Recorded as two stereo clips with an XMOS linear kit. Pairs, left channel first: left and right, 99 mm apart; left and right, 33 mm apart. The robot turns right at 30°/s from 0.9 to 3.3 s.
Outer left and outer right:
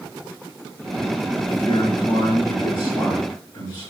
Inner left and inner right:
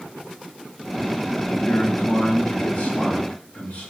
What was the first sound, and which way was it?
A man speaking, 70° left.